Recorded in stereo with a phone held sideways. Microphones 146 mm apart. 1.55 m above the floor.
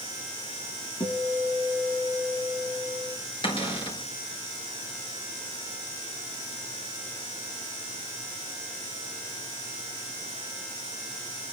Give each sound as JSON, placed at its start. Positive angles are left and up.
{"t": 1.0, "sound": "a guitar", "side_deg": 25, "distance_m": 3.5}
{"t": 3.4, "sound": "a cupboard door", "side_deg": 40, "distance_m": 4.5}